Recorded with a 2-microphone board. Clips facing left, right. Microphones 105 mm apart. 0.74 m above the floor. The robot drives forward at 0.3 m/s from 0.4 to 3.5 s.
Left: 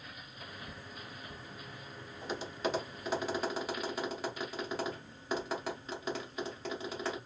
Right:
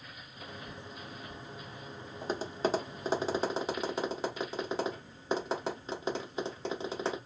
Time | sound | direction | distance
2.2 | tapping | 40° right (ahead or behind) | 0.6 m